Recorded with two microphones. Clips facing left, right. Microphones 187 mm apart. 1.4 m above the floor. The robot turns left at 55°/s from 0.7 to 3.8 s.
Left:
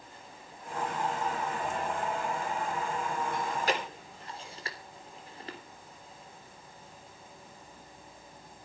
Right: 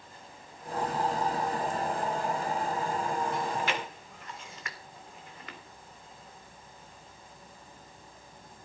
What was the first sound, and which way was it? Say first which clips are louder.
Chewing: even; 60° left (ahead or behind).